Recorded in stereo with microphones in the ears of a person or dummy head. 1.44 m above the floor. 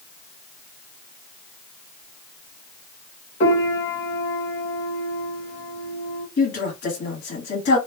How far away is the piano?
About 1.1 m.